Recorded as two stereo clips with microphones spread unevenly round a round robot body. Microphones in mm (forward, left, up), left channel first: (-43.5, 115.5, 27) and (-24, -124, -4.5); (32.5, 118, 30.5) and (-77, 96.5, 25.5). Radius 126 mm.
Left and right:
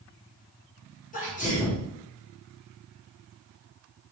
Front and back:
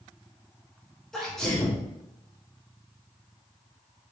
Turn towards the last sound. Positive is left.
turn(degrees=95)